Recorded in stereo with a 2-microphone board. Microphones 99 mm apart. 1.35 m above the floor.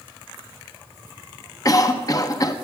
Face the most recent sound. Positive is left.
turn(degrees=35)  # may be behind; listen again after turning